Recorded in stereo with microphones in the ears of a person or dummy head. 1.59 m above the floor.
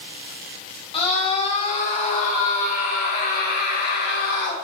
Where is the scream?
30° left (ahead or behind), 4 m; by 4.5 s 60° left (ahead or behind), 4 m.